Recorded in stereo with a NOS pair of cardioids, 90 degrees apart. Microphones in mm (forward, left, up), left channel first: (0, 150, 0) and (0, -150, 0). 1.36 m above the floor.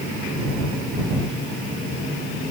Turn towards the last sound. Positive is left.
No sound to turn to.